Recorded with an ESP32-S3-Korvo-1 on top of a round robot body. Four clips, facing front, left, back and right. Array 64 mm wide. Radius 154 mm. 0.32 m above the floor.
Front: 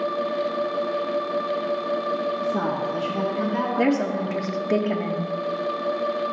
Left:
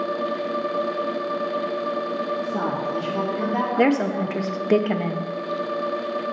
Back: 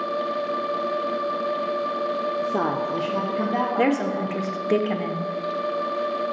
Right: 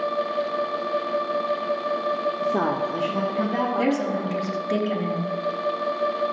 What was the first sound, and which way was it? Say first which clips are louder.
A woman speaking: right 2 dB, even; 120° right.